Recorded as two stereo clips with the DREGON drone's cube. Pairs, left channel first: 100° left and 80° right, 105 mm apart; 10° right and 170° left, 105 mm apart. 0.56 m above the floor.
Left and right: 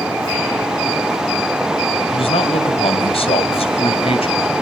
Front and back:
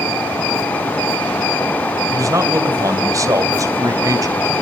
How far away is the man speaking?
About 2.5 m.